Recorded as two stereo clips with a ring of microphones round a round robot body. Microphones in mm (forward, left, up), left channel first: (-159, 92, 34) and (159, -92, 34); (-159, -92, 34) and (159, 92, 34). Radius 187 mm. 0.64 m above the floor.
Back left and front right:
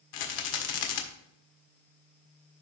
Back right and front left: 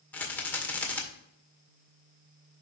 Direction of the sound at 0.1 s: 125° left.